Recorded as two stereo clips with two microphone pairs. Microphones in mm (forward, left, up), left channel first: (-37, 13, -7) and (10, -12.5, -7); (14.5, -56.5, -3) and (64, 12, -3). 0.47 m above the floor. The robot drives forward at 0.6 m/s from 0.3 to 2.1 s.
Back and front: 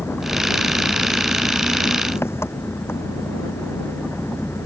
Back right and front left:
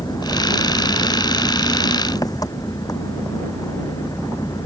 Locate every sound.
0.0 s an engine running: 170° right